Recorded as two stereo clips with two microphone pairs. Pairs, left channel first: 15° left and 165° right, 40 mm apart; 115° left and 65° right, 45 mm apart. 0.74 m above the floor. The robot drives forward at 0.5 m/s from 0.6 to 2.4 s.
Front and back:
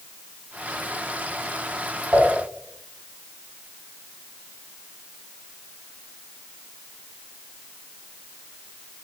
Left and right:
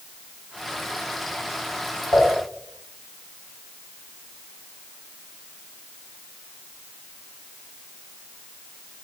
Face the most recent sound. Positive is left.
turn(degrees=150)